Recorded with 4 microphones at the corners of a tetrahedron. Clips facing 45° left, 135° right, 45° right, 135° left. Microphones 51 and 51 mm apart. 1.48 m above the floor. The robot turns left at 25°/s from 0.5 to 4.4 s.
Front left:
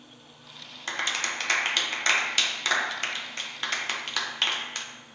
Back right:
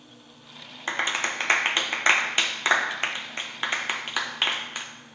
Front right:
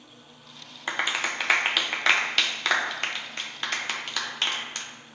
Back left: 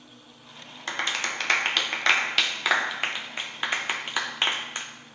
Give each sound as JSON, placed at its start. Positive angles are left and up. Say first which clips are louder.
{"t": 0.9, "sound": "a clap", "louder": "back right 3 dB, front right 1 dB", "azimuth_deg": -105, "distance_m": 0.6}